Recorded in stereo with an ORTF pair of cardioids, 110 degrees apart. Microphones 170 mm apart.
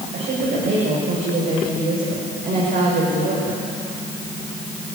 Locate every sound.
0.1 s a woman speaking: 65° right, 7.5 m; by 3.6 s 60° right, 5.5 m